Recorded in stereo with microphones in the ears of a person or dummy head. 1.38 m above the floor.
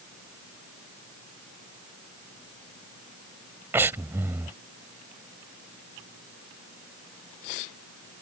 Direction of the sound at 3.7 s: 15° right (ahead or behind).